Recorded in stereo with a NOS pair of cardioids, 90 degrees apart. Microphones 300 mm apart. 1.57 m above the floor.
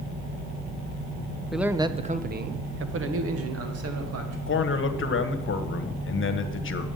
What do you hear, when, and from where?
1.5 s a man speaking: straight ahead, 0.8 m; by 4.4 s 55° right, 2.5 m
4.5 s a man speaking: 40° left, 1.4 m